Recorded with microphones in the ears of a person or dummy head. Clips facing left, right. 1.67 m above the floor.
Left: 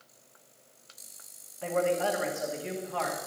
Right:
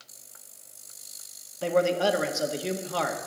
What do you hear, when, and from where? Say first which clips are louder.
1.6 s a man speaking: right 4 dB; 55° right (ahead or behind), 1.9 m